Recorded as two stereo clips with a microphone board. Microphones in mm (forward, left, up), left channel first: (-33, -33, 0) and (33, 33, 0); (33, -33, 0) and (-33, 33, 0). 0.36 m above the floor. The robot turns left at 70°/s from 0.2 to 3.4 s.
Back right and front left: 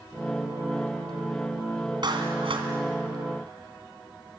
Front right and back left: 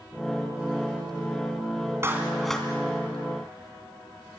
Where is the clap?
75° left, 3 m; by 2.7 s 30° left, 3 m.